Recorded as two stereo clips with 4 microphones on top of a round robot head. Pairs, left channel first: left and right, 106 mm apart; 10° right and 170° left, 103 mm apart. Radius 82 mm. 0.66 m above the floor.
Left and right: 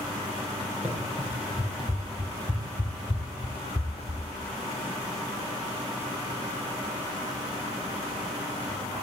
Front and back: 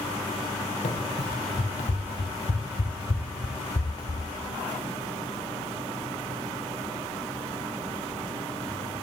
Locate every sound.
0.8 s running footsteps: 10° right, 4.5 m; by 4.2 s 50° left, 3 m